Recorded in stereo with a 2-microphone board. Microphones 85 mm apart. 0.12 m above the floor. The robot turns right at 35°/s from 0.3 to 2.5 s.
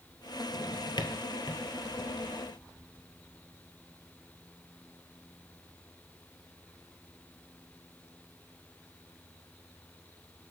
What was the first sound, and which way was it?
A drawer, 55° left (ahead or behind).